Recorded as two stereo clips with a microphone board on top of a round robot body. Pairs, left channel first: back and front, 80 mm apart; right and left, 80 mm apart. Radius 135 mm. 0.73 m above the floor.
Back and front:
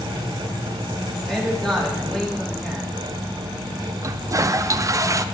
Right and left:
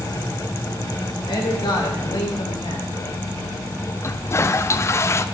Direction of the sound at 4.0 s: 40° right.